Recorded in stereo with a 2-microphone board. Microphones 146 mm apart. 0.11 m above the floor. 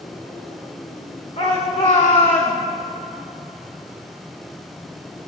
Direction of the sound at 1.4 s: 45° left (ahead or behind).